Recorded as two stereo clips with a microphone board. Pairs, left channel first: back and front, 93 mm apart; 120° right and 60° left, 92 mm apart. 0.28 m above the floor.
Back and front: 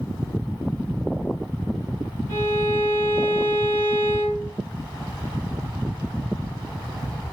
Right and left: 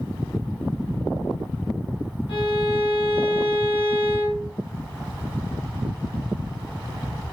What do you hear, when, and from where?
2.3 s a violin: 120° right, 1.4 m